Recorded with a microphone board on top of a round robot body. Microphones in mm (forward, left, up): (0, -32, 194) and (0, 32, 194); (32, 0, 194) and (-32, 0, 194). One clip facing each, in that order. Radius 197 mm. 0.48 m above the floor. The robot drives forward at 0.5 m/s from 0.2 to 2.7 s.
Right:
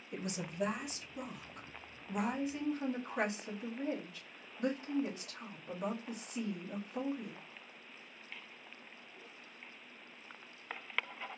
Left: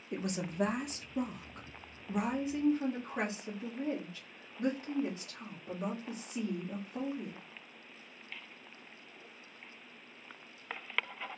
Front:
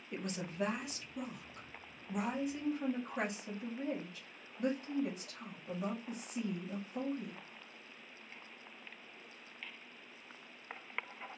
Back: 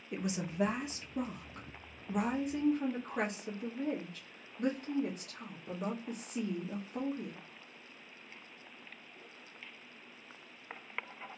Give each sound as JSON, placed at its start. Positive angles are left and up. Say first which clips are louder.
{"t": 0.1, "sound": "a woman speaking", "louder": "left 5 dB, back 4 dB", "azimuth_deg": 100, "distance_m": 1.0}